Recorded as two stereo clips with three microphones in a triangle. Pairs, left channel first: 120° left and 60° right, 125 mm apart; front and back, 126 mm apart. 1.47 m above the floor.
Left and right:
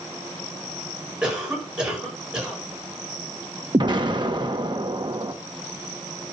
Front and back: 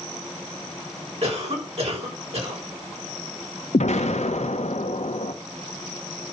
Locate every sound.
1.2 s a cough: 145° right, 6.5 m
3.7 s an explosion: 10° right, 1.4 m